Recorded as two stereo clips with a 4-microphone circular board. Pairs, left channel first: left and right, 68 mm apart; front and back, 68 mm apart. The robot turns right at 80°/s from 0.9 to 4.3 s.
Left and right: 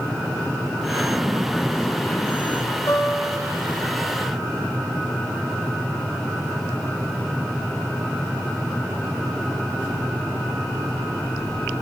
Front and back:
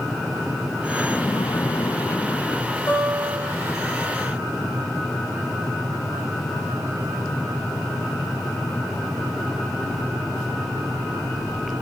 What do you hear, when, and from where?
0.9 s a splash: 65° right, 0.6 m; by 2.8 s 85° left, 0.6 m
2.9 s a guitar: 50° left, 7.5 m; by 3.5 s 100° left, 7.5 m